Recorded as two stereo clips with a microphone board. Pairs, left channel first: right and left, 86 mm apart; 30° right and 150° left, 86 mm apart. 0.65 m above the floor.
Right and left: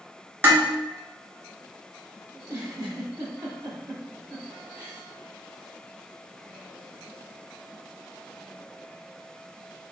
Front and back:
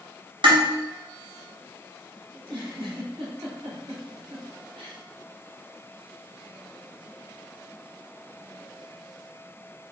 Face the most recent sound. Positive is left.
turn(degrees=155)